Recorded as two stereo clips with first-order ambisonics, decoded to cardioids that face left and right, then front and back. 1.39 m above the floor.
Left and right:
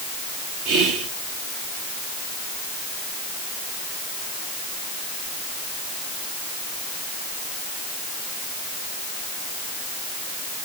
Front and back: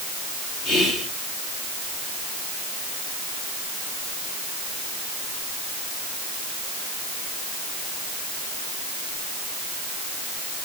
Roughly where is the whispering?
Ahead right.